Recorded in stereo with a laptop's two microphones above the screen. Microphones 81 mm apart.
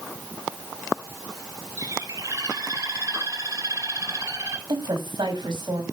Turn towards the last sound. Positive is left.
turn(degrees=-70)  # may be behind; listen again after turning